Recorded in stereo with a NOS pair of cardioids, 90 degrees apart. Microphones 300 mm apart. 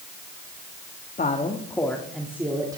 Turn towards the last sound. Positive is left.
turn(degrees=-15)